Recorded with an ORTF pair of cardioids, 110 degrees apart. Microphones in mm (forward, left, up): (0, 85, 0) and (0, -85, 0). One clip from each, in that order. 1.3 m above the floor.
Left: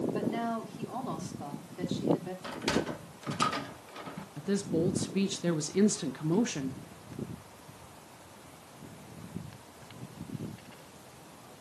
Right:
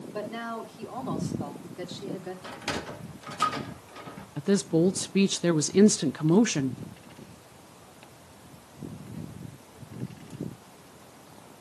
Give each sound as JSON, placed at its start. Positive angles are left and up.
{"t": 0.1, "sound": "a woman speaking", "azimuth_deg": 0, "distance_m": 4.0}
{"t": 2.4, "sound": "a sliding door", "azimuth_deg": 5, "distance_m": 1.1}
{"t": 4.4, "sound": "a woman speaking", "azimuth_deg": -30, "distance_m": 0.5}